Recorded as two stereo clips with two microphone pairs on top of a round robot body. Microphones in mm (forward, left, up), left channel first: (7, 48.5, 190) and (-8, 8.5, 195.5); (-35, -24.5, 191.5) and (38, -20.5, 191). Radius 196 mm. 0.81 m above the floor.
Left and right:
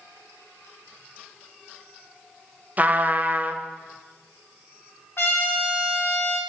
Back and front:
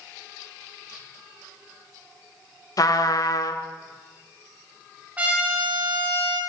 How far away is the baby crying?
I don't hear a baby crying.